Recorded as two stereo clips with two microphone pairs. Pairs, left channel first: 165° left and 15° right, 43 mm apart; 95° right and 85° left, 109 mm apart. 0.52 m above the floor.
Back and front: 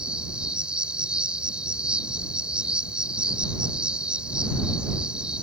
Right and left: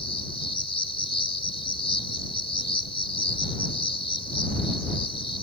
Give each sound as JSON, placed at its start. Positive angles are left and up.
{"t": 0.0, "sound": "an insect", "azimuth_deg": -80}